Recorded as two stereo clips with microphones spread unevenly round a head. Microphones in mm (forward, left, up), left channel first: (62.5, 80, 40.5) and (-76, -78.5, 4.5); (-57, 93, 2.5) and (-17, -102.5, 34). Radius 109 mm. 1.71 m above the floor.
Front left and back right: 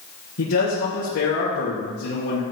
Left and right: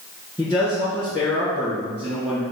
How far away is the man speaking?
About 3.5 m.